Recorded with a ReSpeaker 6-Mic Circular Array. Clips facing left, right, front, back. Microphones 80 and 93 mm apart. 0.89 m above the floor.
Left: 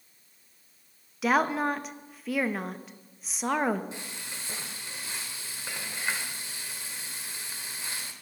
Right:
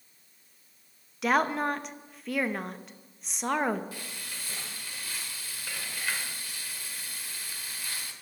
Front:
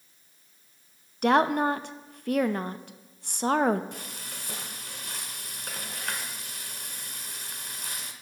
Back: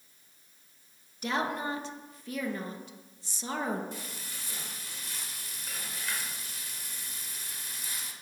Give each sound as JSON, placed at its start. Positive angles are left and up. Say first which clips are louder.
{"t": 1.2, "sound": "a woman speaking", "louder": "left 1 dB, front 10 dB", "azimuth_deg": 0, "distance_m": 0.6}
{"t": 3.9, "sound": "frying", "louder": "left 1 dB, front 1 dB", "azimuth_deg": 25, "distance_m": 1.1}